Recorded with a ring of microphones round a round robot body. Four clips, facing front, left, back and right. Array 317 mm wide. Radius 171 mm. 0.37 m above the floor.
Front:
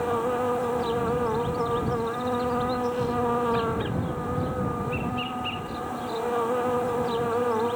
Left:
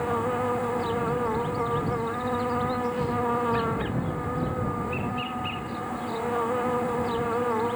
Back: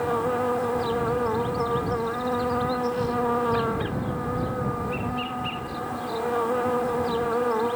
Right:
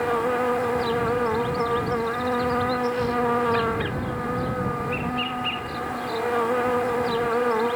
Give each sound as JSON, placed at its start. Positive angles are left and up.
{"t": 0.0, "sound": "an insect", "azimuth_deg": -95}